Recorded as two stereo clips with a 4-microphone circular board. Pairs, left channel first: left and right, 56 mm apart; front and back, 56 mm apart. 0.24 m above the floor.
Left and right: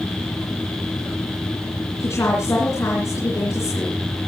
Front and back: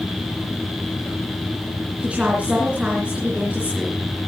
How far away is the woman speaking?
About 3.5 m.